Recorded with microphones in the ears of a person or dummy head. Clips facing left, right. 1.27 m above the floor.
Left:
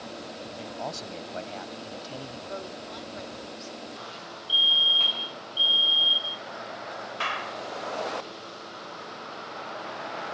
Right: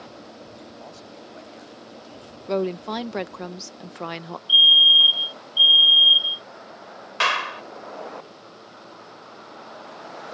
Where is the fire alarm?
60° right (ahead or behind).